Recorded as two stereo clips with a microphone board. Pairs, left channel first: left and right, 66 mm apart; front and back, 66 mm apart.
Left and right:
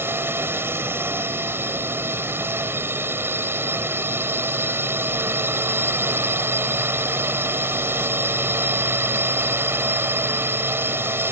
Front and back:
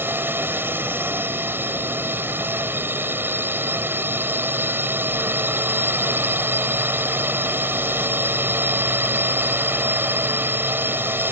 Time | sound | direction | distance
0.0 | a drone | 130° right | ?